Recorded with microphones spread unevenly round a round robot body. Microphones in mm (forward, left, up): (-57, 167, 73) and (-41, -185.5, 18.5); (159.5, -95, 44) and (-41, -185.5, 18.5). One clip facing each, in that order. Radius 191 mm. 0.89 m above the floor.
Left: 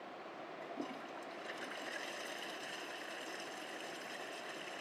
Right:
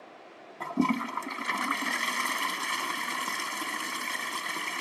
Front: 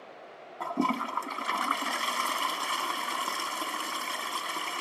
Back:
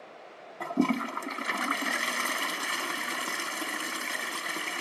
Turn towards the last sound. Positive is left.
turn(degrees=-85)